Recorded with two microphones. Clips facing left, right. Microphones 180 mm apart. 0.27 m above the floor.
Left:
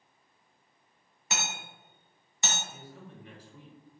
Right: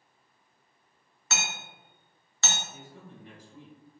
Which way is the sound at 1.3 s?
15° left (ahead or behind).